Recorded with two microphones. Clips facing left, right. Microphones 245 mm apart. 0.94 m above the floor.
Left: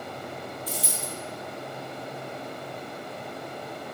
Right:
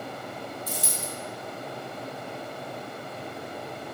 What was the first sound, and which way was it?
A dropped coin, 50° right (ahead or behind).